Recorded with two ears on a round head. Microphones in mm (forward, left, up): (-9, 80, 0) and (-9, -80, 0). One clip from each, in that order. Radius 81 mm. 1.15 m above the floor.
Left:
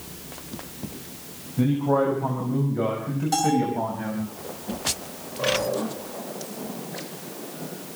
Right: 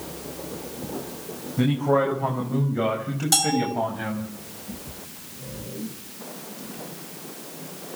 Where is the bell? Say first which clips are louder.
Even; 65° right (ahead or behind), 8.5 m.